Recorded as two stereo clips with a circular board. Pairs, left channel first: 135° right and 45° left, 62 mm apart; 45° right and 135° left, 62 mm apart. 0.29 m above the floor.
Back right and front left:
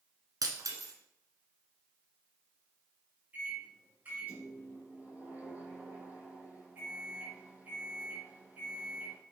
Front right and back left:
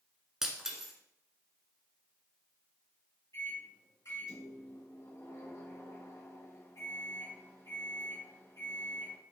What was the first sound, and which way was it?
Breaking glass, 55° left.